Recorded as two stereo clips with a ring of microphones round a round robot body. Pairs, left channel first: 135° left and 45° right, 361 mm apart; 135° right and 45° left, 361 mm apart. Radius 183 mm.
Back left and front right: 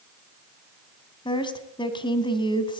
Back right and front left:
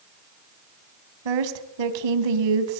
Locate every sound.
1.2 s a woman speaking: 55° left, 3 m